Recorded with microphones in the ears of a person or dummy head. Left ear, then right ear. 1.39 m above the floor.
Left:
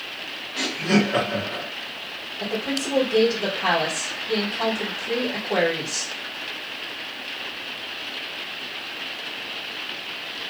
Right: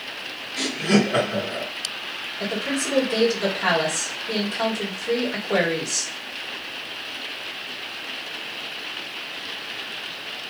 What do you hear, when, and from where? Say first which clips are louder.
0.6 s laughter: right 1 dB; 5° right (ahead or behind), 1.5 m
2.4 s a woman speaking: even; 40° right (ahead or behind), 1.9 m